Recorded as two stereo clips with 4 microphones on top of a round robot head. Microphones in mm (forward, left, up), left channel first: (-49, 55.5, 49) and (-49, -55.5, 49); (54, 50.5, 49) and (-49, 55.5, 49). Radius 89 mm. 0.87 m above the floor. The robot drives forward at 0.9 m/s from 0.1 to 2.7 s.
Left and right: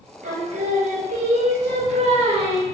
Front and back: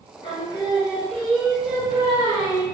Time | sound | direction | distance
0.2 | singing | 60° right | 1.9 m